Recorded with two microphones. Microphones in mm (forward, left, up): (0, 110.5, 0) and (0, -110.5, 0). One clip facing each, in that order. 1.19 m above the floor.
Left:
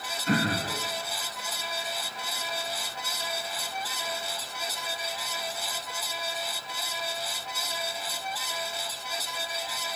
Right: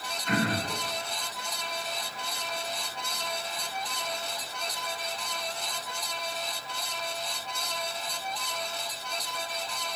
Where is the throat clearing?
35° left (ahead or behind), 1.6 m.